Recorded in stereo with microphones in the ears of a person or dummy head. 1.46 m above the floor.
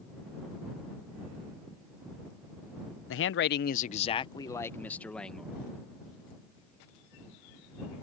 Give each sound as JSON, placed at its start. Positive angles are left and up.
{"t": 3.1, "sound": "a man speaking", "side_deg": 80}